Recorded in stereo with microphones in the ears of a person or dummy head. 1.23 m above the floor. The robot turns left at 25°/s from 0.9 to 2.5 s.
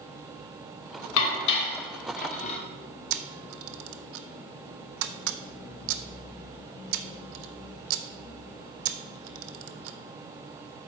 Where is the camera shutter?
60° right (ahead or behind), 0.6 m.